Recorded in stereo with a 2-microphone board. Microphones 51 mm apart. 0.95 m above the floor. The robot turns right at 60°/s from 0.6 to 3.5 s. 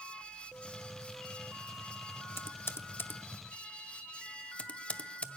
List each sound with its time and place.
2.4 s typing on a keyboard: 50° left (ahead or behind), 0.6 m; by 5.3 s 25° left (ahead or behind), 0.6 m